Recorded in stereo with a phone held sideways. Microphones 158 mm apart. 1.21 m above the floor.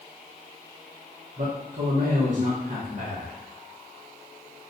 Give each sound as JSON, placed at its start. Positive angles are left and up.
{"t": 1.4, "sound": "a man speaking", "side_deg": -60, "distance_m": 0.9}